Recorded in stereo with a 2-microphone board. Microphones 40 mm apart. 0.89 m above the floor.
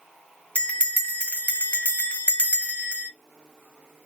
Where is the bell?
35° left (ahead or behind), 0.5 m.